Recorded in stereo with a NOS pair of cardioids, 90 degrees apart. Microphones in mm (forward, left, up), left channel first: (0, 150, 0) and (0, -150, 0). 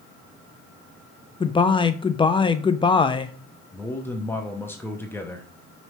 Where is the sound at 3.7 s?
10° left, 0.7 m.